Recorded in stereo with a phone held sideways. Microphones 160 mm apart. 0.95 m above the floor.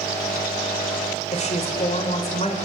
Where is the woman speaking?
45° left (ahead or behind), 3.5 m.